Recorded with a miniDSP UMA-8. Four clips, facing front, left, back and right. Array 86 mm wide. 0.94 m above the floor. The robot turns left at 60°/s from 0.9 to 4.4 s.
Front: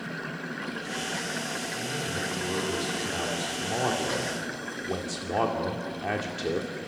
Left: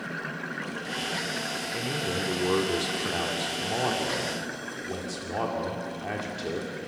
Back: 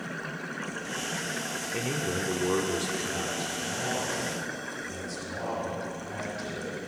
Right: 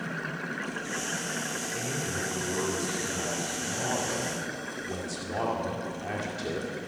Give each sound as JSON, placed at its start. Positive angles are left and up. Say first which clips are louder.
{"t": 1.7, "sound": "a man speaking", "louder": "left 4 dB, back 5 dB", "azimuth_deg": 165, "distance_m": 2.0}